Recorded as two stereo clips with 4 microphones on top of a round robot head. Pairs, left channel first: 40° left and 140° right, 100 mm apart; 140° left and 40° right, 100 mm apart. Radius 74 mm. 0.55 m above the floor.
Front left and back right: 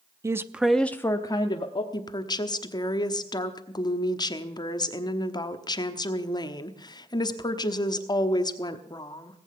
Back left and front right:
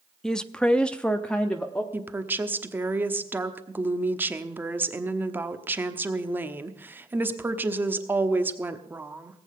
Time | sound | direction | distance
0.2 | a woman speaking | 140° right | 0.7 m
1.9 | a woman speaking | 20° left | 1.1 m